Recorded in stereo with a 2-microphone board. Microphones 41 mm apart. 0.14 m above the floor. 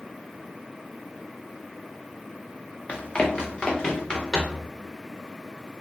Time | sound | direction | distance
2.9 | running footsteps | 30° left (ahead or behind) | 1.2 m